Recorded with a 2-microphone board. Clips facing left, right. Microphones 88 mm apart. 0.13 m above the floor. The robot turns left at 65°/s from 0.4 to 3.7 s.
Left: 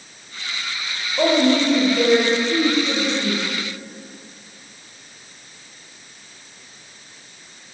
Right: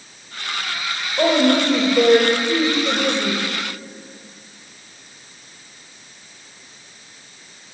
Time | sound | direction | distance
1.2 | a woman speaking | straight ahead | 3 m